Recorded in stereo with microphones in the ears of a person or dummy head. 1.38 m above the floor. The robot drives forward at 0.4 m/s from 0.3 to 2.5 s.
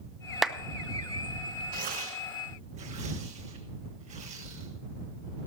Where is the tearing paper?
50° right (ahead or behind), 1.2 m; by 4.7 s 40° right (ahead or behind), 1.4 m.